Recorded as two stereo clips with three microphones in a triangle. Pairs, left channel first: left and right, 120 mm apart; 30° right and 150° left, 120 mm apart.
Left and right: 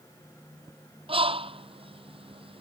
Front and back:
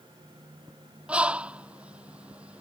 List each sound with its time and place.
1.1 s a bird: 130° right